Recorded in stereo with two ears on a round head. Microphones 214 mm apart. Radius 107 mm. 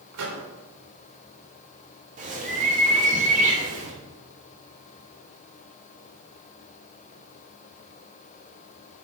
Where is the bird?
35° right (ahead or behind), 2.5 m.